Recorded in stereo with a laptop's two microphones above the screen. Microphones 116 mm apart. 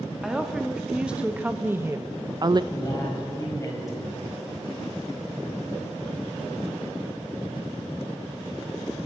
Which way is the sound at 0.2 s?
5° right (ahead or behind).